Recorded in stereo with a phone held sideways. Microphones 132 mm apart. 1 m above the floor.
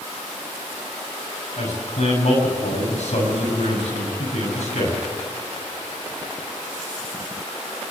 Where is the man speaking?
65° left (ahead or behind), 7 m.